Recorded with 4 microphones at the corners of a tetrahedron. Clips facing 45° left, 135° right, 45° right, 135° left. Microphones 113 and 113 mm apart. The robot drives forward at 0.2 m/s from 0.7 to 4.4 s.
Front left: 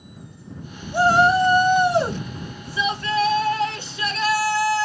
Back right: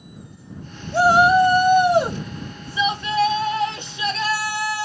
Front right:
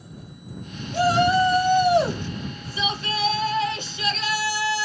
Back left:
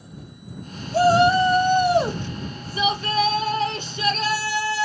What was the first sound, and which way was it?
A shout, 155° left.